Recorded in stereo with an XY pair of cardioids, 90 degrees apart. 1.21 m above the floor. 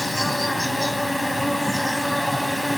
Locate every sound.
0.0 s an insect: 10° left